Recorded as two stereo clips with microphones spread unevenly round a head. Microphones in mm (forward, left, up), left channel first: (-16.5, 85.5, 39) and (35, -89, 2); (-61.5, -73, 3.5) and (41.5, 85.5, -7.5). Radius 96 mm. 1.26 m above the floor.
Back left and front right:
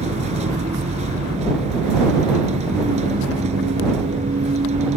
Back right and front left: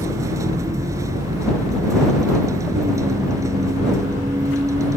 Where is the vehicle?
20° right.